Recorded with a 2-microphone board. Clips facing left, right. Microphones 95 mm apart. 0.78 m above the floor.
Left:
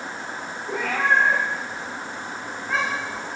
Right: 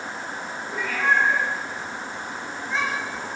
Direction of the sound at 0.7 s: 80° left.